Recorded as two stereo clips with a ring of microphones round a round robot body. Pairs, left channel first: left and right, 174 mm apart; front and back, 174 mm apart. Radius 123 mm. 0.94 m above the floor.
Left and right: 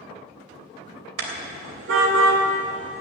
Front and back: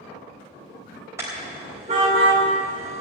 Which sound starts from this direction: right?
A car horn, at 1.2 s.